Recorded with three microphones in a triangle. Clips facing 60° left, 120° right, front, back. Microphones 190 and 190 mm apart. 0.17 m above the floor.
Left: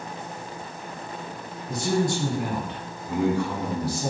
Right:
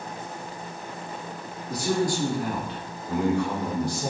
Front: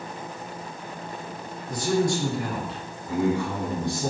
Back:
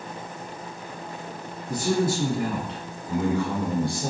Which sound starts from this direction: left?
A man speaking, at 1.7 s.